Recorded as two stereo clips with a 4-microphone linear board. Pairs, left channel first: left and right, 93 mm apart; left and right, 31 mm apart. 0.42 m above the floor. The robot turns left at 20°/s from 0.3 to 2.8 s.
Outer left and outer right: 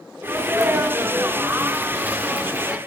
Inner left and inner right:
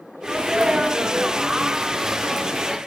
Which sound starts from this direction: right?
A sneeze, at 0.2 s.